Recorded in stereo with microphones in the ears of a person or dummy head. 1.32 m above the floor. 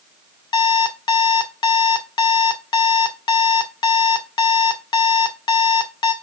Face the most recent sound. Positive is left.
turn(degrees=25)  # may be behind; listen again after turning